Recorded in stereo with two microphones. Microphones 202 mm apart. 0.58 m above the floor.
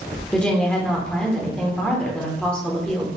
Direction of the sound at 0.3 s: 5° left (ahead or behind).